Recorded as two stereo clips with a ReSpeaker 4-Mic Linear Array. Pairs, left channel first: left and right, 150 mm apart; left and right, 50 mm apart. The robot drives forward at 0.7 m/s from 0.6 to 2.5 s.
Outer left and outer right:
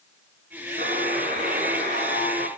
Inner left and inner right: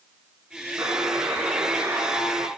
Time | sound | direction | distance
0.8 | a buzzer | 80° right | 5 m